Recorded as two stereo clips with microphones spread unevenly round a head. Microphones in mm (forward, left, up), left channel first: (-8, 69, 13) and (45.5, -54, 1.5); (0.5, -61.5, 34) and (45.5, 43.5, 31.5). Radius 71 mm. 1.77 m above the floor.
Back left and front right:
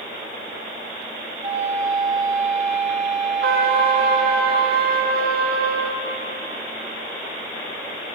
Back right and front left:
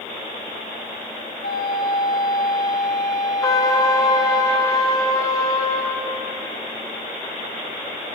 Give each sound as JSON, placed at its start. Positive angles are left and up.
{"t": 1.4, "sound": "a flute", "azimuth_deg": -135, "distance_m": 2.5}
{"t": 3.4, "sound": "a trumpet", "azimuth_deg": -50, "distance_m": 0.7}